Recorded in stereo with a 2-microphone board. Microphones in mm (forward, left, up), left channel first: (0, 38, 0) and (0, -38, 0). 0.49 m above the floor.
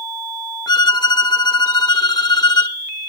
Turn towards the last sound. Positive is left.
turn(degrees=65)  # may be behind; listen again after turning